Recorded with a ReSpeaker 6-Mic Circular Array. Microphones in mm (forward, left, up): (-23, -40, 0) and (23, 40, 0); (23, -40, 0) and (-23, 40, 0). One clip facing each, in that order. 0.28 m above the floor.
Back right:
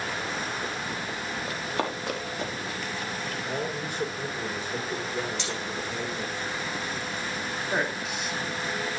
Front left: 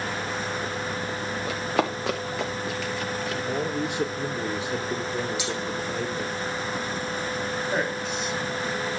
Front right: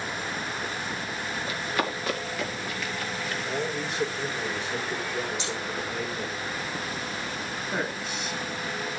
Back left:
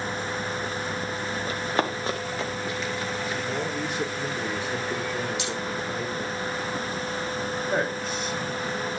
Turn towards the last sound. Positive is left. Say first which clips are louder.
# back right 1 dB, back left 4 dB
turn(degrees=155)